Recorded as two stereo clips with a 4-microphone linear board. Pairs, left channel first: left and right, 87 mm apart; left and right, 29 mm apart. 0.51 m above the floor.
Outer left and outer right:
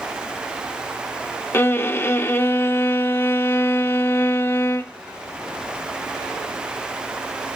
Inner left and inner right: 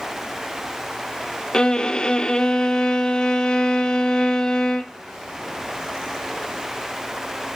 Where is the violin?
25° left (ahead or behind), 0.6 m.